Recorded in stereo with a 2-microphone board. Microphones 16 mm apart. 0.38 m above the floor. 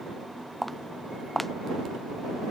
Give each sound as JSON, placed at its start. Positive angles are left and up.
{"t": 0.6, "sound": "footsteps", "side_deg": 10}